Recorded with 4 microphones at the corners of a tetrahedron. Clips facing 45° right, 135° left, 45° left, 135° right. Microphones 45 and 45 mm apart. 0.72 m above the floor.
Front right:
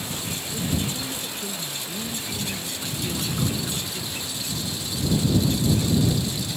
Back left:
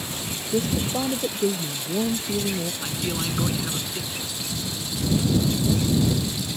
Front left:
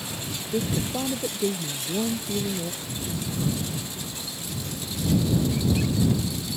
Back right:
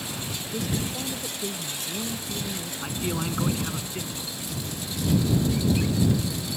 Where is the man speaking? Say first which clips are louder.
Back left 1 dB, back right 3 dB; 160° right.